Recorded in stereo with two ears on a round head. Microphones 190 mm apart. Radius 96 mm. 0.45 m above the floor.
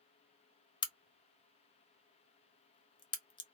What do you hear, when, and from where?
0.8 s a crack: 25° left (ahead or behind), 0.5 m